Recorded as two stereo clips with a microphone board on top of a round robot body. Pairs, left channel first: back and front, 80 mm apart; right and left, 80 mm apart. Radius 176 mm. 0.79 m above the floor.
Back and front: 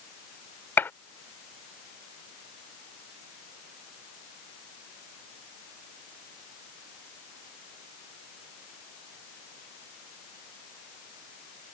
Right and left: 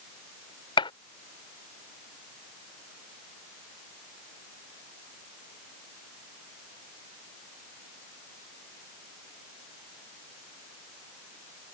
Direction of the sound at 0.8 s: 110° right.